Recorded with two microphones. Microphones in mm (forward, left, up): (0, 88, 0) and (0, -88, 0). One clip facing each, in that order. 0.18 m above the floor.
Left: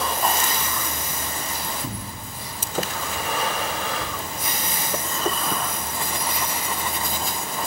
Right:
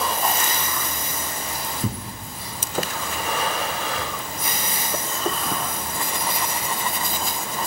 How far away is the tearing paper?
About 2 m.